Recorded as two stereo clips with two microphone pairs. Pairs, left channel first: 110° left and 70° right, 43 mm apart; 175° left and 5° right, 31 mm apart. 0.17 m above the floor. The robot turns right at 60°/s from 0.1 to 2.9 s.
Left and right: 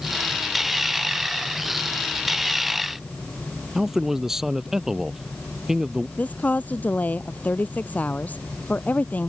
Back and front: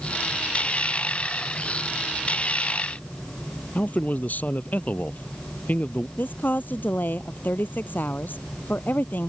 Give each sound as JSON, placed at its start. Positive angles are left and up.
{"t": 3.8, "sound": "a man speaking", "azimuth_deg": -145}
{"t": 6.2, "sound": "a woman speaking", "azimuth_deg": 165}